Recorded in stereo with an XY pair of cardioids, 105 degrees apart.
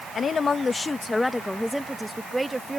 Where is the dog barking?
I don't hear a dog barking.